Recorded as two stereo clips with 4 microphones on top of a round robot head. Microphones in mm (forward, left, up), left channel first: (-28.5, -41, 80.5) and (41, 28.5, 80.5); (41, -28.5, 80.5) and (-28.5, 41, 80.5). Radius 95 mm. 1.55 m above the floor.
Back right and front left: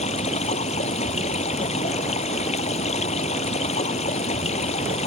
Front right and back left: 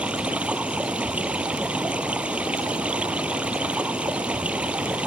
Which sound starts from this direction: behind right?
Running water, at 0.0 s.